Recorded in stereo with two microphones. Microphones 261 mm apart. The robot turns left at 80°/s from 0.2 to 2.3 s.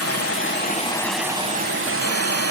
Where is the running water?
75° left, 0.9 m; by 2.5 s 95° right, 0.9 m.